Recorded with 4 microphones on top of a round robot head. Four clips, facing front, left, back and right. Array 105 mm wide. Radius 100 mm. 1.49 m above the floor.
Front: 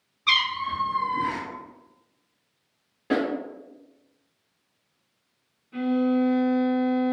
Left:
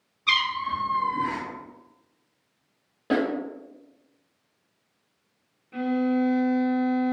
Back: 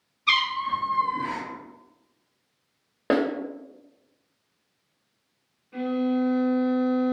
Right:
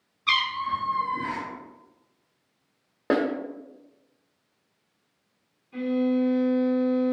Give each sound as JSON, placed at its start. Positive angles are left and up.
{"t": 0.3, "sound": "a cat meowing", "azimuth_deg": 5, "distance_m": 1.5}
{"t": 3.1, "sound": "a snare drum", "azimuth_deg": -145, "distance_m": 0.6}
{"t": 5.7, "sound": "a violin", "azimuth_deg": 100, "distance_m": 1.5}